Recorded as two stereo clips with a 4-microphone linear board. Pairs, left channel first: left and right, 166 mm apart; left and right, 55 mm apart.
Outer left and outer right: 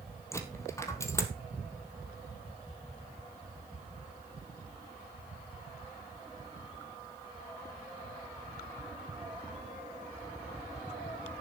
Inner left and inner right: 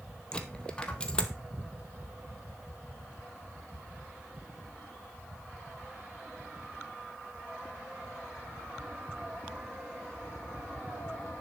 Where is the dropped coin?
15° left (ahead or behind), 1.8 m.